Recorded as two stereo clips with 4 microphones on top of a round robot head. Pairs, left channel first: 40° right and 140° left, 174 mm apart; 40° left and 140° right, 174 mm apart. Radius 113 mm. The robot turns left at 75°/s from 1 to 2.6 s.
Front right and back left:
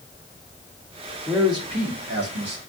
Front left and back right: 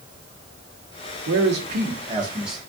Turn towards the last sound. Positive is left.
turn(degrees=125)